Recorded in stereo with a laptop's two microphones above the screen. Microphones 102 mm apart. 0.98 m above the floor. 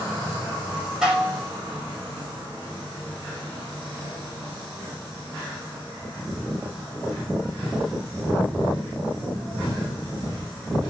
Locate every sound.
1.0 s dishes clattering: 5° right (ahead or behind), 1.0 m